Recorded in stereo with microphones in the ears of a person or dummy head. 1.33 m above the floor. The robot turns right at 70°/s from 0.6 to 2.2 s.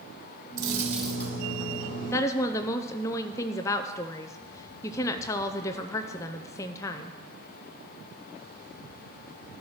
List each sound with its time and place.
0.6 s a dropped coin: 30° right, 2 m; by 1.4 s 20° left, 2 m
2.1 s a woman speaking: 15° left (ahead or behind), 0.5 m; by 7.2 s 20° left (ahead or behind), 0.5 m